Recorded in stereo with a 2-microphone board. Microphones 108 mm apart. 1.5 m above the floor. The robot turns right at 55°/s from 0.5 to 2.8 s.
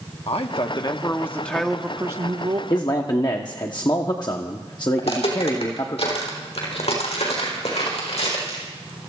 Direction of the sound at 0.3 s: 115° left.